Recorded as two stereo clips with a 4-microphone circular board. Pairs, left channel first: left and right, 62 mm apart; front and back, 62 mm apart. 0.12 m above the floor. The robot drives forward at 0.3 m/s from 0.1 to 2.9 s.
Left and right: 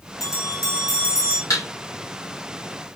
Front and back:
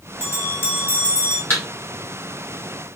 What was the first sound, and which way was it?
A bell, 55° left.